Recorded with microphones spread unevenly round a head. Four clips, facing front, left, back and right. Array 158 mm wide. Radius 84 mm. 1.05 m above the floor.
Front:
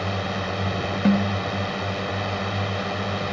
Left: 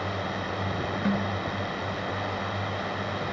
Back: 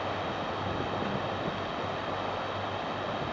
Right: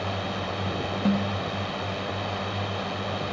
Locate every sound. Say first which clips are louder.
0.0 s a drone: right 1 dB, front 5 dB; 5° right
1.1 s a snare drum: right 3 dB, front 11 dB; 10° right